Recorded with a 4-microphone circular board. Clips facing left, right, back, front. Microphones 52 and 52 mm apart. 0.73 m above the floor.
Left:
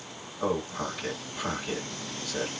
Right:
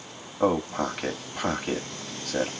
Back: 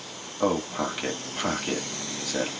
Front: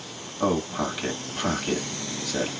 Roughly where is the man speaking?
Right.